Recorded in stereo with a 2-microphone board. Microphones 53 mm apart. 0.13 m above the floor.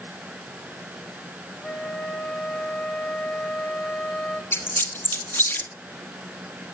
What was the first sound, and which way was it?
A flute, 15° left (ahead or behind).